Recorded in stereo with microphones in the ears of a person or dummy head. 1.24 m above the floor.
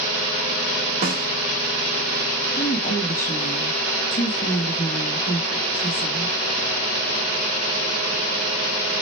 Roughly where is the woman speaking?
Left.